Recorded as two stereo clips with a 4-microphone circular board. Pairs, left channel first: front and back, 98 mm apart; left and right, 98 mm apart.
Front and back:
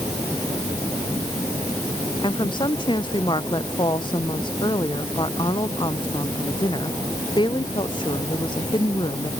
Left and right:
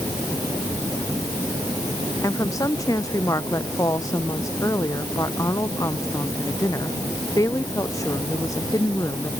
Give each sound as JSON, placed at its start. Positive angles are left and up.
{"t": 2.2, "sound": "a woman speaking", "azimuth_deg": 35}